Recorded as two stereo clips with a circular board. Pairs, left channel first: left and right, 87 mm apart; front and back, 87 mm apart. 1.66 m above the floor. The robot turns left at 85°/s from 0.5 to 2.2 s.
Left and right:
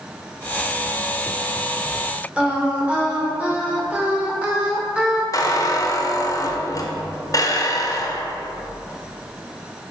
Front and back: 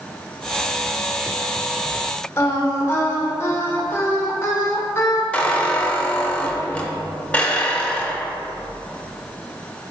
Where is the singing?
25° right, 1.0 m.